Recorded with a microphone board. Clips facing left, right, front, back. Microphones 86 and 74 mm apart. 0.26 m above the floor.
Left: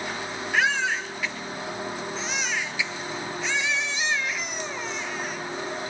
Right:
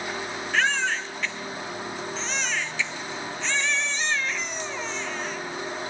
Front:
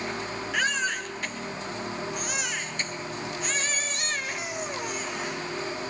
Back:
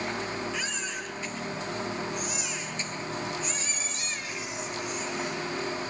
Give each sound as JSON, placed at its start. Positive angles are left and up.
{"t": 0.5, "sound": "a baby crying", "azimuth_deg": 10, "distance_m": 2.5}